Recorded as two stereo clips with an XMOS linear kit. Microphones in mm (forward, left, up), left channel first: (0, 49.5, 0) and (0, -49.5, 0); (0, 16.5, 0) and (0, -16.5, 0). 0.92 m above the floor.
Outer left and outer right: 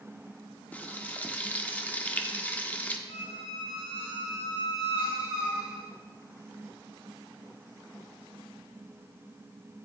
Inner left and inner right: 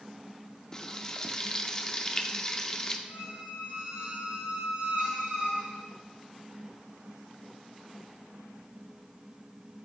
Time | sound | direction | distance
0.7 | frying | 20° left (ahead or behind) | 0.7 m
3.1 | a squeak | 50° right (ahead or behind) | 4 m